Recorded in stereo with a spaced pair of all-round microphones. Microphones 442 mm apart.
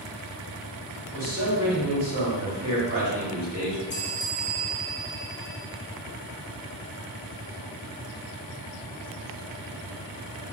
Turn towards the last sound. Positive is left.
turn(degrees=25)  # may be behind; listen again after turning